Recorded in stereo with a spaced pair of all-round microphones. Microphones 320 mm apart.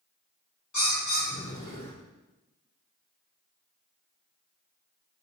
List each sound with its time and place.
0.7 s a bird: 55° left (ahead or behind), 1.7 m